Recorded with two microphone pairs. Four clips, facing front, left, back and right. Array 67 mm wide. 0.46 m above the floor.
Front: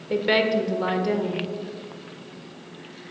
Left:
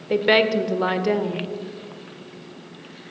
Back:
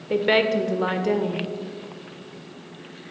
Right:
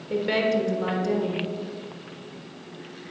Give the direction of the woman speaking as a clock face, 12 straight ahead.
8 o'clock.